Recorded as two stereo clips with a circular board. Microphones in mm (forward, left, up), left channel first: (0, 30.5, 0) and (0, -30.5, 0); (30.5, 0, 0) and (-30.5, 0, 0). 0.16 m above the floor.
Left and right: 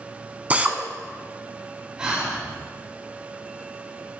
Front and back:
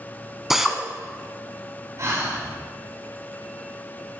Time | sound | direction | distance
0.5 | a drill | 100° right | 0.8 m
2.0 | breathing | 165° right | 3 m